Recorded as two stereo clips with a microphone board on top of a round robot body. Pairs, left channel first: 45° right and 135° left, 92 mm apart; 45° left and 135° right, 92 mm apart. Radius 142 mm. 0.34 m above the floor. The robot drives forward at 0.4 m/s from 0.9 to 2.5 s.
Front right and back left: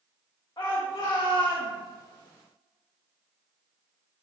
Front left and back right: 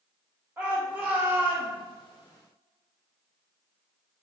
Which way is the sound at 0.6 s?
85° right.